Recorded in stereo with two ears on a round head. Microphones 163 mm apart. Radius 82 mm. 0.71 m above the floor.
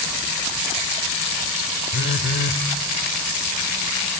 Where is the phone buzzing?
60° left (ahead or behind), 0.7 m.